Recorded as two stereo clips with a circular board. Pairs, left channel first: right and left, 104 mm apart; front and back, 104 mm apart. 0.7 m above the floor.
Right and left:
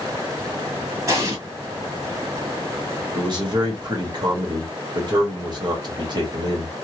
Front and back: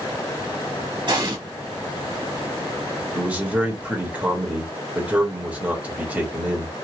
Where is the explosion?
145° left, 1.7 m.